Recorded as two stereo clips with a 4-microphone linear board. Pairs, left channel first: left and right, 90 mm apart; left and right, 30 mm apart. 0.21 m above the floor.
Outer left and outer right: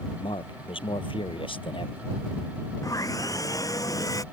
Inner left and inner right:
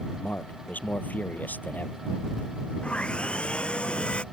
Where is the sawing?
40° left (ahead or behind).